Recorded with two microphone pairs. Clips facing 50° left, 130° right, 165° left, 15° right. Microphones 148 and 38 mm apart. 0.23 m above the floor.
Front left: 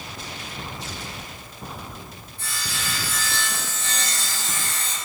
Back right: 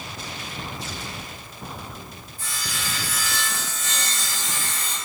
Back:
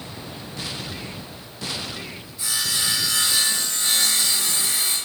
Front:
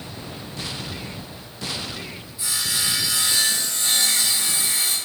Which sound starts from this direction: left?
Sawing, at 2.4 s.